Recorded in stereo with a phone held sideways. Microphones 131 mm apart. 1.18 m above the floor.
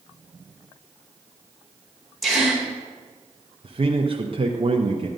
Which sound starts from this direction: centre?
A gasp, at 2.2 s.